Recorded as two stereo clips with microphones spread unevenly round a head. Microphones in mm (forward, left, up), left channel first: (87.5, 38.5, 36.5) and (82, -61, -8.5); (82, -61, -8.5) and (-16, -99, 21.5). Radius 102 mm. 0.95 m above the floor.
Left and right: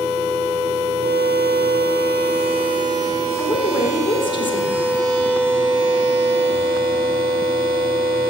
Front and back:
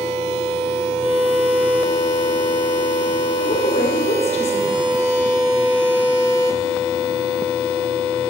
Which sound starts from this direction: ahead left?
A woman speaking, at 3.4 s.